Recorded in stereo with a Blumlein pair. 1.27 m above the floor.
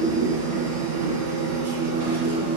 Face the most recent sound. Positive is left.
turn(degrees=-55)